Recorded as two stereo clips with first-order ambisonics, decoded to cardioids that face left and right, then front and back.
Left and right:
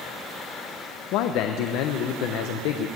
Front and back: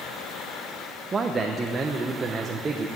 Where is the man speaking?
110° left, 0.8 m.